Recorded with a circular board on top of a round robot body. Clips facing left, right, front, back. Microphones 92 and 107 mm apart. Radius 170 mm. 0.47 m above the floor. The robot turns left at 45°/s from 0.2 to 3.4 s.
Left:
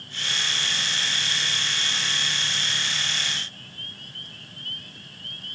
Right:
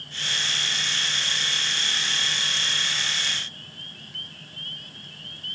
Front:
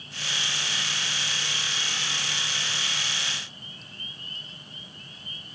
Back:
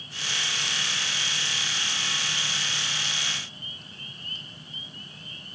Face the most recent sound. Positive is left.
No sound to turn to.